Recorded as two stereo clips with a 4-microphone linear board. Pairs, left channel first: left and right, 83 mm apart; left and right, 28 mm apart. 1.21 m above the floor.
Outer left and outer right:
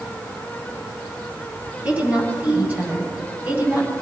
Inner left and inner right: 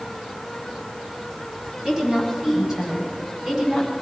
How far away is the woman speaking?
About 7.5 m.